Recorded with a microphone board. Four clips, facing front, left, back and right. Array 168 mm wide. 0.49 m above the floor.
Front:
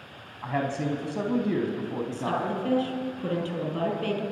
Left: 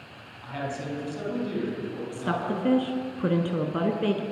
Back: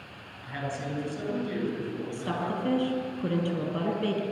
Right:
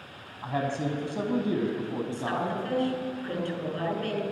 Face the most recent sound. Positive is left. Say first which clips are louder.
# left 3 dB, front 2 dB
turn(degrees=95)